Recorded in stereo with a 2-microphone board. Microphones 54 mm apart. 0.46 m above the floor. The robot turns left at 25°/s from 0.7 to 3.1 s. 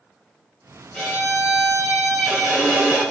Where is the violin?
5° left, 1.9 m; by 3.0 s 45° right, 1.9 m.